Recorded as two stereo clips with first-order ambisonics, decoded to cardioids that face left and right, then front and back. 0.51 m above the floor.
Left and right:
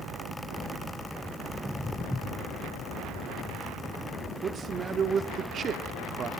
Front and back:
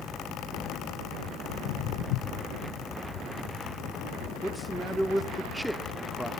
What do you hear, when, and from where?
1.5 s footsteps: straight ahead, 2.0 m
4.4 s a man speaking: 95° right, 0.9 m